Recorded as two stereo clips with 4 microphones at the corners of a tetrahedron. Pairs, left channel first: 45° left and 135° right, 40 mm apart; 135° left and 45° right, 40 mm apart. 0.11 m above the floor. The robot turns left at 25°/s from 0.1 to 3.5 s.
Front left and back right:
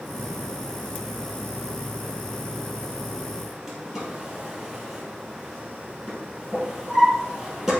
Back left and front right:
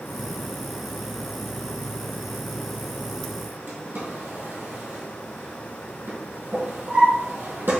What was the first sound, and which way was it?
A drawer, 50° right.